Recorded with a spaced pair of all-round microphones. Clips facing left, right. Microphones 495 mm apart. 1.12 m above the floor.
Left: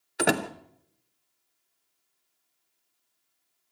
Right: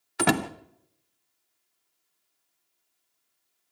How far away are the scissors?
I don't hear scissors.